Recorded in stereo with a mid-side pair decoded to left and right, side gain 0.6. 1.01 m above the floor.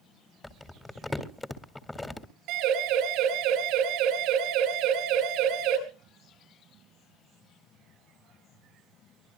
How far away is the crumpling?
About 2 m.